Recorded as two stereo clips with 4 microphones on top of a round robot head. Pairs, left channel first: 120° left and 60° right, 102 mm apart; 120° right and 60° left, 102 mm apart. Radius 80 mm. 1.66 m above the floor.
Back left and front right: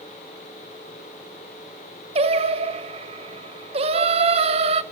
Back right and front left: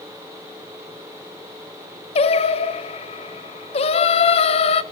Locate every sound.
2.1 s singing: 90° right, 0.9 m